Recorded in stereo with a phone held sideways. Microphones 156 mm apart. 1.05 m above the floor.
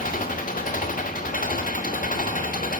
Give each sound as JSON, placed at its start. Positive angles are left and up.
{"t": 0.0, "sound": "an engine running", "side_deg": 65, "distance_m": 1.1}